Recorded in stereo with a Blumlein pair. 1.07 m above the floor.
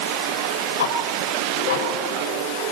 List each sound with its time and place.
0.8 s ticking: 60° left, 3.5 m